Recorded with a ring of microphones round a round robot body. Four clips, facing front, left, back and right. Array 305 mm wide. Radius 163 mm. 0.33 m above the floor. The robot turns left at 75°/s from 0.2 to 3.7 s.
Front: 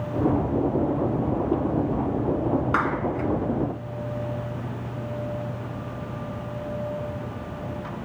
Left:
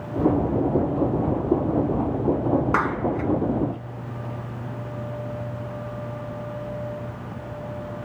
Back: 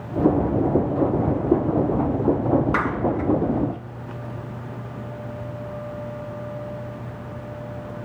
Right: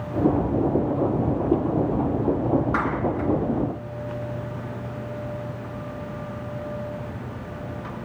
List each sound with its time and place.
2.7 s a clap: 75° left, 3 m; by 3.3 s 35° left, 3 m